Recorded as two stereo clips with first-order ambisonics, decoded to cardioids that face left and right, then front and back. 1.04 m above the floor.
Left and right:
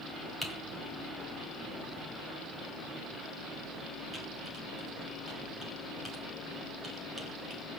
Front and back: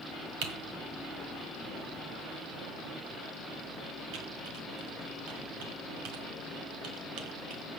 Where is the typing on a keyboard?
175° right, 1.8 m.